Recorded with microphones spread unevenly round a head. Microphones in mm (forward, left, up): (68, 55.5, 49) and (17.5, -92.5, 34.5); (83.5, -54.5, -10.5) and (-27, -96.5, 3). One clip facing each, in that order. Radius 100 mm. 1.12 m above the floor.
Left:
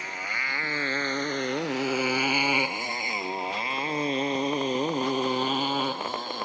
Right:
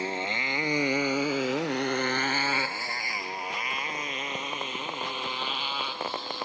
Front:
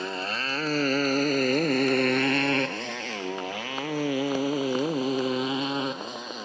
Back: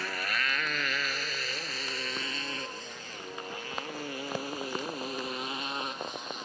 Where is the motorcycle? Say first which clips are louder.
Right 6 dB, front 3 dB; 45° right; by 6.5 s 30° left.